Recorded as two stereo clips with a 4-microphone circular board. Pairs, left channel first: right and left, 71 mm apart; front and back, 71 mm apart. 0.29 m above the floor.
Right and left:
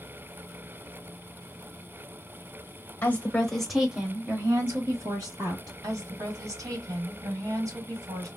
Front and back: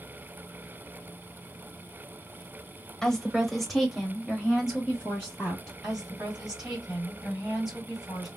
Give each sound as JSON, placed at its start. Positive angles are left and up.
{"t": 3.0, "sound": "a woman speaking", "azimuth_deg": -70, "distance_m": 1.0}
{"t": 5.8, "sound": "a woman speaking", "azimuth_deg": 100, "distance_m": 2.0}